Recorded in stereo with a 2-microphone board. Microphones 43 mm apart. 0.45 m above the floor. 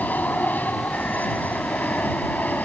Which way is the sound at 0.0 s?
40° left (ahead or behind).